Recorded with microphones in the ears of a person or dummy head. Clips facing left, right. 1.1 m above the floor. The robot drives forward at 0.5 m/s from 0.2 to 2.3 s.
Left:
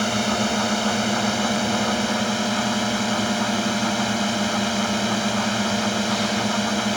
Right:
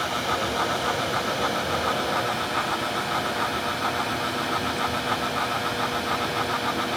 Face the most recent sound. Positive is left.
turn(degrees=55)  # may be behind; listen again after turning